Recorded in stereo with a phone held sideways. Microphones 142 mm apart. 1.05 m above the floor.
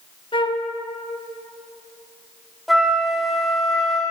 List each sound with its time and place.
0.3 s a flute: 35° left (ahead or behind), 1.3 m
2.7 s a flute: centre (ahead or behind), 2.5 m